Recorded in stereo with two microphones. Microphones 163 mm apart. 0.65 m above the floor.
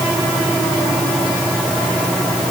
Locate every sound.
Only background noise.